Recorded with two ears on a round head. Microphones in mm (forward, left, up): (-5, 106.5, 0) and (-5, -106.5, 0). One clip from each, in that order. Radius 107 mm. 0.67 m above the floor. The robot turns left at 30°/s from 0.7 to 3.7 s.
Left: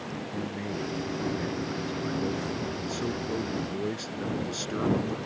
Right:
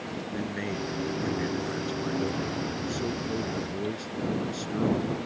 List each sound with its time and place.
0.3 s a man speaking: 125° right; by 5.2 s 145° left